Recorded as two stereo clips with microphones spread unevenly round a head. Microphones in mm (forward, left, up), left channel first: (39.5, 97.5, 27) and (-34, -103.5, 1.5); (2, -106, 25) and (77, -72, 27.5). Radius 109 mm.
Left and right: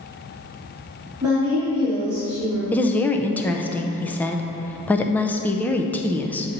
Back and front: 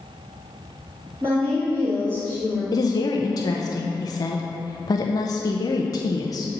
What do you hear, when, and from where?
1.2 s a woman speaking: 35° right, 2.5 m
2.7 s a woman speaking: 155° left, 0.5 m